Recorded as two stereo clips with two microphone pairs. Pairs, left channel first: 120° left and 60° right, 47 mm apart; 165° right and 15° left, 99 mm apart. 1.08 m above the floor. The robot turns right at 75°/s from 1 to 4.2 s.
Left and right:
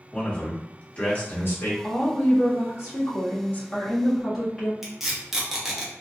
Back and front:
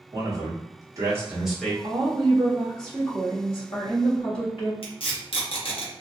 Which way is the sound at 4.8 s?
140° right.